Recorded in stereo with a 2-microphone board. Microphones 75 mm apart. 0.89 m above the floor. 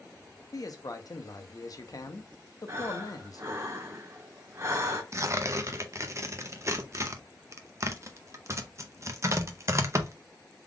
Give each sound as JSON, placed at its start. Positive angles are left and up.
{"t": 0.5, "sound": "a man speaking", "side_deg": 50, "distance_m": 0.7}
{"t": 2.7, "sound": "breathing", "side_deg": -40, "distance_m": 0.8}
{"t": 5.1, "sound": "tearing paper", "side_deg": -40, "distance_m": 0.6}